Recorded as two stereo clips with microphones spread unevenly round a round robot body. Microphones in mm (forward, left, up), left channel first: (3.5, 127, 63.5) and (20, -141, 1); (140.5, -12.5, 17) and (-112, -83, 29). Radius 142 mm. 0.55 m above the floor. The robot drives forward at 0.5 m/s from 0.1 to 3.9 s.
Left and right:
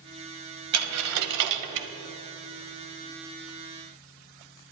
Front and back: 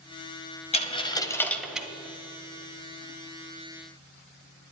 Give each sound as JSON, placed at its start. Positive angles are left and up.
{"t": 0.7, "sound": "a dropped coin", "azimuth_deg": -50, "distance_m": 1.2}